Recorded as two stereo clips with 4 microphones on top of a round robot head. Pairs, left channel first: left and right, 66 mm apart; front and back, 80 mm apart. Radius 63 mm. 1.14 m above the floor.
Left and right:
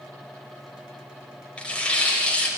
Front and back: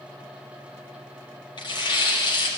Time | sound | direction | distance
1.6 | tearing paper | 15° left | 5.5 m